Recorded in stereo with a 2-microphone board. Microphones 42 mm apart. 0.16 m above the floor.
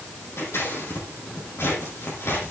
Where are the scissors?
80° left, 7 m.